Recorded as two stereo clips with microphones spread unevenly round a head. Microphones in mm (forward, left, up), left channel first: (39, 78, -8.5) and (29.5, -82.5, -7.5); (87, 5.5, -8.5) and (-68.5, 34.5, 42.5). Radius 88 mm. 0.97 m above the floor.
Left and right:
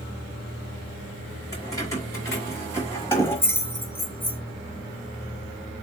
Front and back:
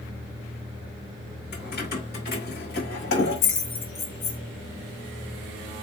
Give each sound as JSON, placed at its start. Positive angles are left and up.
{"t": 1.5, "sound": "keys jangling", "azimuth_deg": 15, "distance_m": 3.5}